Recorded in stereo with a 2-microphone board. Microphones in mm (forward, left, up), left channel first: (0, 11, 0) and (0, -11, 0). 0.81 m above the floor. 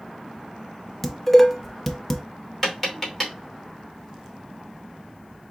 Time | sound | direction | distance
1.0 | dishes clattering | 10° left (ahead or behind) | 0.7 m
2.6 | tapping | 5° left (ahead or behind) | 2.5 m